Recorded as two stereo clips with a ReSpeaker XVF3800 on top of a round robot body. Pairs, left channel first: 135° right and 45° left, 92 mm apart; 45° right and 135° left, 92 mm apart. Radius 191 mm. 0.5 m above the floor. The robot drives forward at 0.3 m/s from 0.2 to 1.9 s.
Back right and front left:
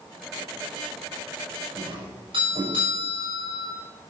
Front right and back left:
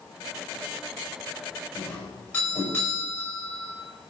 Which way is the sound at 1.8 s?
25° left.